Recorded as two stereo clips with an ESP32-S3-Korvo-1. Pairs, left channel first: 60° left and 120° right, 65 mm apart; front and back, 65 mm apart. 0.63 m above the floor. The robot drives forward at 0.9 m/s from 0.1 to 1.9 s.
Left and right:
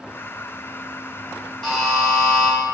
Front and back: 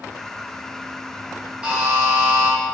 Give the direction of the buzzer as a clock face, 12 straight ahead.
8 o'clock.